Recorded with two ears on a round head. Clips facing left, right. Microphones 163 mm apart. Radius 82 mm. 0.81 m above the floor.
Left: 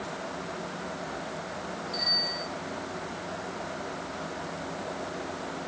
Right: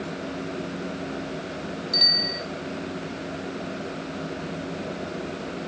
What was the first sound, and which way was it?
A bicycle bell, 85° right.